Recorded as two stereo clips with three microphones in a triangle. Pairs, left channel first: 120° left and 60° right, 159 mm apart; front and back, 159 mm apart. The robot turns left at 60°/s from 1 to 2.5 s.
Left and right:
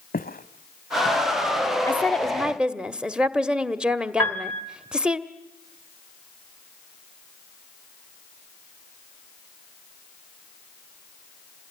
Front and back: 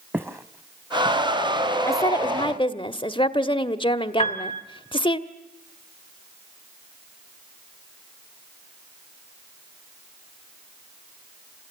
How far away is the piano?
About 2.5 m.